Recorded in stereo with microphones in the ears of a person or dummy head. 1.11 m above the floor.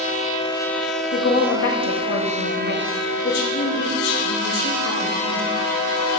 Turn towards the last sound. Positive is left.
turn(degrees=65)  # may be behind; listen again after turning